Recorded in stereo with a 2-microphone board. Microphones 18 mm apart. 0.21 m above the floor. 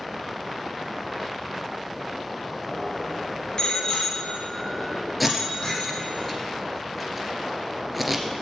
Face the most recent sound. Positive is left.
turn(degrees=0)  # may be behind; listen again after turning